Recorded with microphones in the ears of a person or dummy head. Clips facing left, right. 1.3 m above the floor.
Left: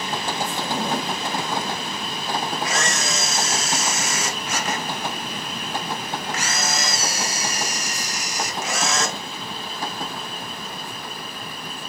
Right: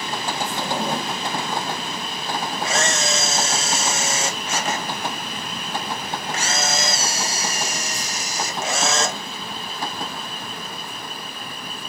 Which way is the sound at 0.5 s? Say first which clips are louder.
Right 1 dB; 10° right (ahead or behind).